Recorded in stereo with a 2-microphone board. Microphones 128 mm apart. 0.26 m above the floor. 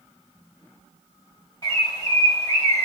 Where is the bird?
35° left (ahead or behind), 1.8 m.